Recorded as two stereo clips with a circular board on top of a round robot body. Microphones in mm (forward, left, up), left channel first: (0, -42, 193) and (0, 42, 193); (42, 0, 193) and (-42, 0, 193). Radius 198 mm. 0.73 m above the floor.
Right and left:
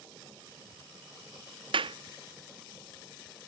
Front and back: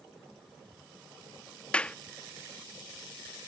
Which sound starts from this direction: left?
A clap, at 1.7 s.